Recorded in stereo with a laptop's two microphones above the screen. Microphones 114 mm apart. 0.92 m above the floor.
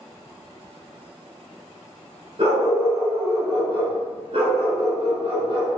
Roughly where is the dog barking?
Right.